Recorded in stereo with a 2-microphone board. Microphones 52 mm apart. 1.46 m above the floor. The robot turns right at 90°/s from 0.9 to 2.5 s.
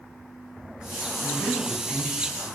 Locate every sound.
1.2 s a man speaking: 110° left, 7 m; by 2.5 s 135° right, 7 m